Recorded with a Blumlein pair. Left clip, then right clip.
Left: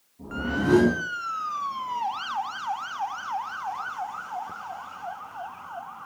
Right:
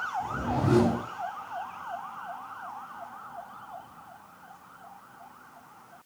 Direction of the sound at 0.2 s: 50° left.